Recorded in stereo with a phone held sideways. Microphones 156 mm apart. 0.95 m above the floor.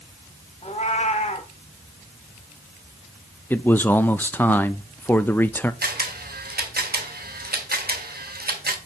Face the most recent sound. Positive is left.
turn(degrees=-85)